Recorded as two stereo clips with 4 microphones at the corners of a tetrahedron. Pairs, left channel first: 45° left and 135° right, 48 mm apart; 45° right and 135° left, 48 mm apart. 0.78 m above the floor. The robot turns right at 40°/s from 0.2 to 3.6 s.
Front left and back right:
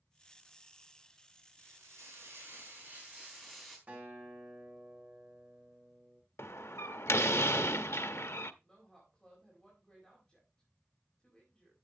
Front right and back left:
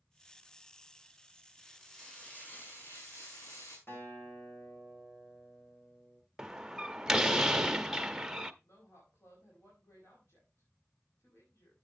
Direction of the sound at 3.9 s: 85° right.